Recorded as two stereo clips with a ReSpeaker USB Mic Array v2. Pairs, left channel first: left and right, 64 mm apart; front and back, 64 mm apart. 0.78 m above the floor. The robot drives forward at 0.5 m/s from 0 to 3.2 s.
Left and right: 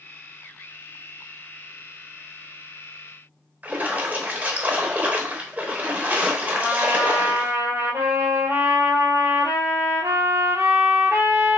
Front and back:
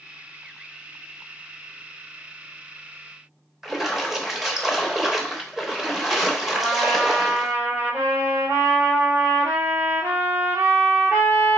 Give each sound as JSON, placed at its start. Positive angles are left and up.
{"t": 3.6, "sound": "a splash", "azimuth_deg": -100, "distance_m": 0.9}
{"t": 6.5, "sound": "a trumpet", "azimuth_deg": -135, "distance_m": 2.5}